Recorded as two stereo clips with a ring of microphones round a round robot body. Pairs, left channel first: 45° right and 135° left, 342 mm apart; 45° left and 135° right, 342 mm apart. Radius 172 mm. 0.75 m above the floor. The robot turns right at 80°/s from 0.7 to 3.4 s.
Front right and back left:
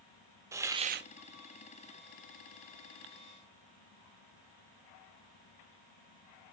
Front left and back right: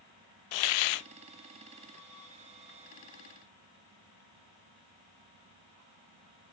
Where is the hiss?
55° left, 0.5 m; by 1.1 s 85° left, 0.5 m.